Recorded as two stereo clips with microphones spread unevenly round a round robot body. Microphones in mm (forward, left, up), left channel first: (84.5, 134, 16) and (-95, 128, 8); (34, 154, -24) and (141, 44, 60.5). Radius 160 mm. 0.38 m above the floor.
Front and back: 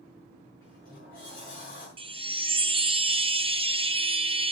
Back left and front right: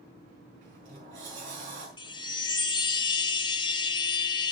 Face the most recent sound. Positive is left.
turn(degrees=130)